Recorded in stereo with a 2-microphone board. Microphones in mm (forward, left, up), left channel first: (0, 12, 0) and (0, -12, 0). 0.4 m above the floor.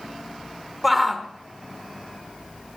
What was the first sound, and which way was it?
A shout, 5° right (ahead or behind).